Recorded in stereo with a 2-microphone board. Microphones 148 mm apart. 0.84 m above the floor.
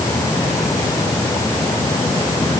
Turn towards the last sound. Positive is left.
No sound to turn to.